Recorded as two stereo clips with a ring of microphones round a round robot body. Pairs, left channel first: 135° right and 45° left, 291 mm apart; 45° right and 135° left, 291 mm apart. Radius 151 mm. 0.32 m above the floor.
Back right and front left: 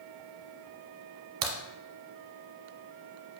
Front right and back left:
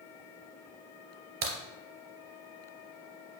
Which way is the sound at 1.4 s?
80° left.